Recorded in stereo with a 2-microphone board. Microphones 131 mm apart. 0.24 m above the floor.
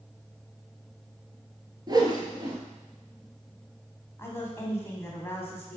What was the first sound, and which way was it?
A whoosh, 30° right (ahead or behind).